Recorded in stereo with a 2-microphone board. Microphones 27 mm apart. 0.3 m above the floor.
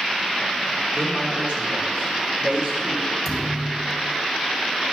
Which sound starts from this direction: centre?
A thud, at 3.2 s.